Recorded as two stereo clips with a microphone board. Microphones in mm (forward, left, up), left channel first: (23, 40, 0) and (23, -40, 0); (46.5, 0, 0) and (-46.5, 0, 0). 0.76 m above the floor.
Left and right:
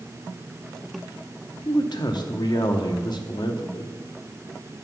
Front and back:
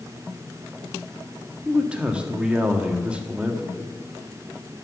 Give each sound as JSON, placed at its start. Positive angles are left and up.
{"t": 1.6, "sound": "a man speaking", "azimuth_deg": 100, "distance_m": 1.1}